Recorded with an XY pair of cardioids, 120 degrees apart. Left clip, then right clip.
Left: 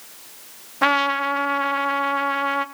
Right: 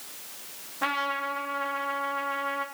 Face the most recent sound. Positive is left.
turn(degrees=60)